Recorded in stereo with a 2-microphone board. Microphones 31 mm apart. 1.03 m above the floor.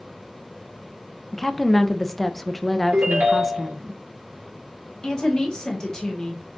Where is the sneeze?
No sneeze in this recording.